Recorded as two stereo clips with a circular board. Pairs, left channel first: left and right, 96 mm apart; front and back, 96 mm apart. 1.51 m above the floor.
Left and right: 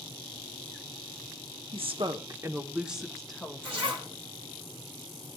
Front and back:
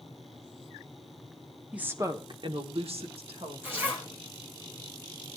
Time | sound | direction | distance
1.7 | a woman speaking | 100° right | 1.0 m
3.6 | a zipper | 110° right | 2.5 m